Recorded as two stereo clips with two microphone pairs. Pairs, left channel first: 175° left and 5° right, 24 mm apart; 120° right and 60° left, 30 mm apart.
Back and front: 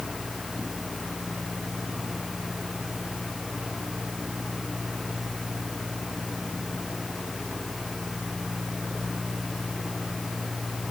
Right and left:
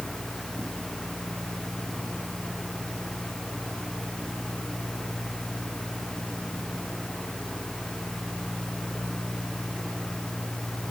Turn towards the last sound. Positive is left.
No sound to turn to.